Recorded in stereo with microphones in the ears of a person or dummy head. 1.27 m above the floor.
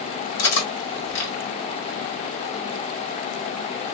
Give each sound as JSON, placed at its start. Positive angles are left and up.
{"t": 0.4, "sound": "cutlery clinking", "side_deg": 70, "distance_m": 1.9}